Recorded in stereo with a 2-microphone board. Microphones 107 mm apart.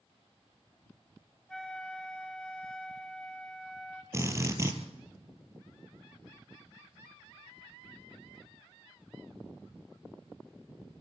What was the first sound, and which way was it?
A flute, 5° left (ahead or behind).